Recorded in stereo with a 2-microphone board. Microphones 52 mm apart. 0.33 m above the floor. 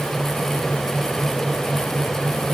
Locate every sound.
Only background noise.